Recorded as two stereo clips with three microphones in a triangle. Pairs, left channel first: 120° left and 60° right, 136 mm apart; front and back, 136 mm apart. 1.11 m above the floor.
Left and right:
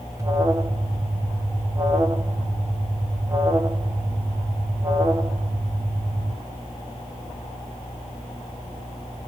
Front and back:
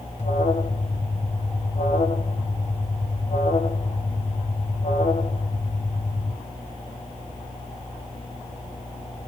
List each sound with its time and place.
0.2 s an alarm: straight ahead, 1.3 m